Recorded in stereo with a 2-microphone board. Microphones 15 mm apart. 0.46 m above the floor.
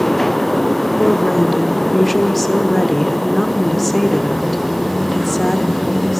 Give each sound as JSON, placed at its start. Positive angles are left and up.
{"t": 1.0, "sound": "a woman speaking", "side_deg": 5, "distance_m": 1.0}